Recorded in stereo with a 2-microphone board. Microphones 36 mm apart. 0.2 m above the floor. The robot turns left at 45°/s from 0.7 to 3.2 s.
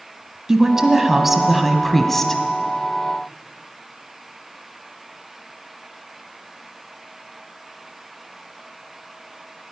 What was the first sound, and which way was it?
A woman speaking, 15° right (ahead or behind).